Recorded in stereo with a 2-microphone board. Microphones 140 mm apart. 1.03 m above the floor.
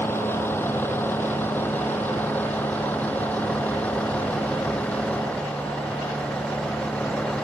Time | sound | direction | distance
0.0 | a vehicle | 15° left (ahead or behind) | ?